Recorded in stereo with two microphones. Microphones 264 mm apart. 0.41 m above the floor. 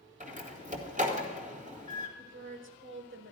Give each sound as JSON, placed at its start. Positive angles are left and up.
{"t": 0.2, "sound": "a door slam", "side_deg": -30, "distance_m": 1.9}
{"t": 2.2, "sound": "a woman speaking", "side_deg": -45, "distance_m": 1.9}